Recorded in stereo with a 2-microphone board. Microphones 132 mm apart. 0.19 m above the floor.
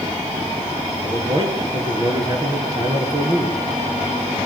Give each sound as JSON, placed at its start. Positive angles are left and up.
{"t": 1.0, "sound": "a man speaking", "side_deg": -35, "distance_m": 5.0}